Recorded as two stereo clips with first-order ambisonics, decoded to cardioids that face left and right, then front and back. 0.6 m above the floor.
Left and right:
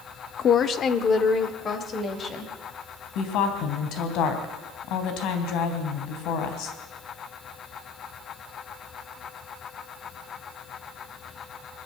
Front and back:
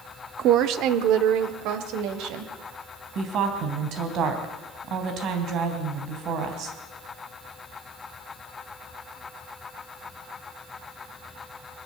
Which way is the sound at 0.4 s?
145° left.